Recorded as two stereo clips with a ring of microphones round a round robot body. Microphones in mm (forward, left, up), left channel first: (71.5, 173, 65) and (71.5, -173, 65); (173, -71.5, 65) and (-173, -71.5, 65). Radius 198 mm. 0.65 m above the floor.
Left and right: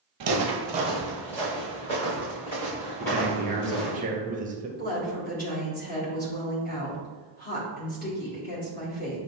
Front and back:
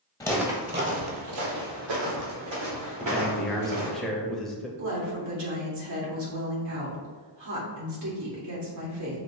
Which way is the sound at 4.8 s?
155° left.